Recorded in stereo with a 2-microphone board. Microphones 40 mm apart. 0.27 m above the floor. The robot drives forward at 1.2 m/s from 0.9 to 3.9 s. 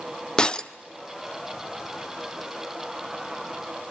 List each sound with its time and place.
0.4 s breaking glass: 20° left (ahead or behind), 0.5 m